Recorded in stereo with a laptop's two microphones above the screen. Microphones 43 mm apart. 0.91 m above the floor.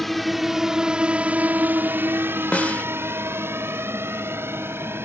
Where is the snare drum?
35° left (ahead or behind).